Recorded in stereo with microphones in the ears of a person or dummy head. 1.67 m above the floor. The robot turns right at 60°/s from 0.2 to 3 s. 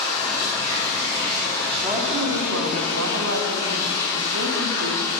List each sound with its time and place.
0.0 s running water: 145° right, 4.5 m; by 5.2 s 25° left, 4.5 m
1.8 s a woman speaking: 155° right, 1.5 m; by 5.2 s 85° right, 1.5 m